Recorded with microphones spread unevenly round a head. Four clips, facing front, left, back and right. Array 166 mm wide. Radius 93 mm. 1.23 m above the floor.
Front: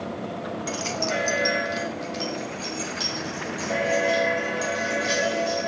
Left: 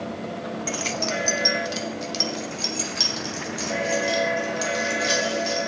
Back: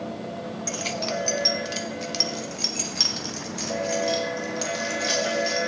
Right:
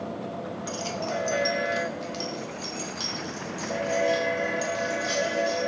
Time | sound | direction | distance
0.7 | keys jangling | 95° left | 0.7 m